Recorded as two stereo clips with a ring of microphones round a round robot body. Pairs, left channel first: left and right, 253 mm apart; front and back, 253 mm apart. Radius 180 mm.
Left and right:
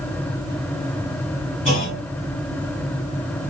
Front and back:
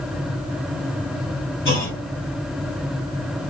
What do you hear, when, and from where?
1.6 s a clunk: 25° left, 3.5 m